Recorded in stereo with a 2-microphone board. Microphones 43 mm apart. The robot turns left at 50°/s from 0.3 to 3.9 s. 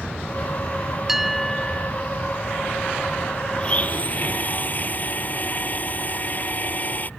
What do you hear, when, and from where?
1.1 s a bell: 165° right; by 1.9 s 150° left
3.6 s a blender: 20° left (ahead or behind); by 7.1 s 35° left (ahead or behind)